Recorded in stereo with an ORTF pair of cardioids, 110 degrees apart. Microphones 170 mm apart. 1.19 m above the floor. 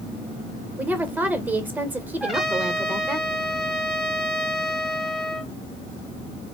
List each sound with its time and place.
0.8 s a woman speaking: 10° right, 1.1 m
2.2 s a trumpet: straight ahead, 1.2 m